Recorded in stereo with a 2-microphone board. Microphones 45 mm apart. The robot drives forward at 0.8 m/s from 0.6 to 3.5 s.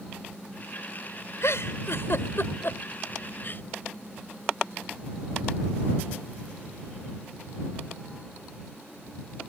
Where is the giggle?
75° left (ahead or behind); by 3.6 s 45° left (ahead or behind).